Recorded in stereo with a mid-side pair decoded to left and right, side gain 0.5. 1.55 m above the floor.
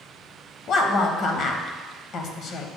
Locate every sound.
0.7 s a woman speaking: 60° left, 1.0 m